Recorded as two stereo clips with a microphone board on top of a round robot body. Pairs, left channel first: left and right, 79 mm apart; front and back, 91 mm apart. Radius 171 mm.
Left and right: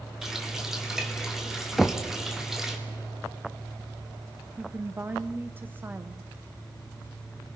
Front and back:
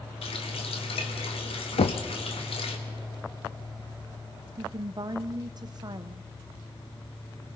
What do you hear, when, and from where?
0.2 s a running tap: 5° right, 2.5 m
1.8 s knocking: 5° left, 0.6 m
4.6 s a woman speaking: 150° right, 1.0 m